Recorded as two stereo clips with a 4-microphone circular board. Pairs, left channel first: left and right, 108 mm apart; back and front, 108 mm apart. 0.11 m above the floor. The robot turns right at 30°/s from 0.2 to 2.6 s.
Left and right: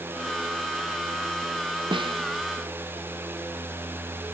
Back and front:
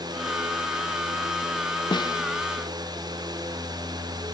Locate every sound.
1.9 s a snare drum: 135° right; by 2.2 s 125° right